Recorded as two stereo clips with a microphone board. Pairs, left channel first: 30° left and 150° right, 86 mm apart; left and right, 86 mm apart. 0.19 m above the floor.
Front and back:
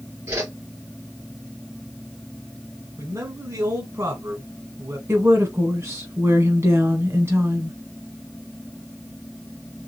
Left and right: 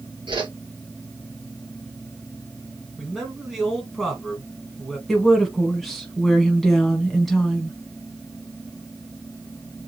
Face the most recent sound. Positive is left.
turn(degrees=175)